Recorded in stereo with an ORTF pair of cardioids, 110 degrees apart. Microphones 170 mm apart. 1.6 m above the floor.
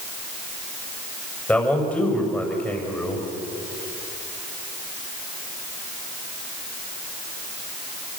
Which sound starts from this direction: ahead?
A man speaking, at 1.5 s.